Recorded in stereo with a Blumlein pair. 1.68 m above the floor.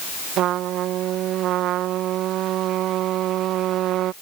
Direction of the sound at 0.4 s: 35° right.